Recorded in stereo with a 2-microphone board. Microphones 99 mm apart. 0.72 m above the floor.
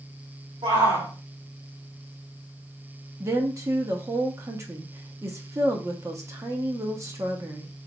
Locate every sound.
0.6 s a shout: 60° right (ahead or behind), 2 m
3.2 s a woman speaking: 30° right (ahead or behind), 1.0 m